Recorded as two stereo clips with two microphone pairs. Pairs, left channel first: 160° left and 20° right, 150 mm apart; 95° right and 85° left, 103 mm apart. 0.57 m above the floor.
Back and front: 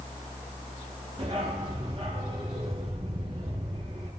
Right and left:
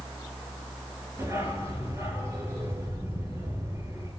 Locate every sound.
1.2 s a dog barking: 25° left, 4.5 m